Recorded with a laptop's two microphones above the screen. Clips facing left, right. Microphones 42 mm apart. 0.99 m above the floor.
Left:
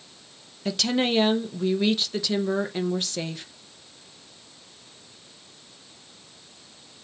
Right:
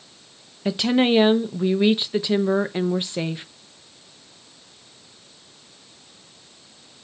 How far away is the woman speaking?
About 0.5 m.